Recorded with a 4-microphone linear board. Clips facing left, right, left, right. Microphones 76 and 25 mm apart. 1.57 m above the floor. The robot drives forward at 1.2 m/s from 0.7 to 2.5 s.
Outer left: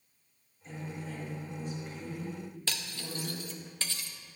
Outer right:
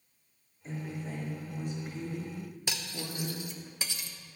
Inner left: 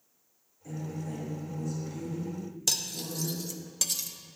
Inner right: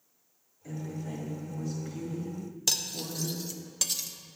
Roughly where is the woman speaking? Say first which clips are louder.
Outer right 2 dB, even; right.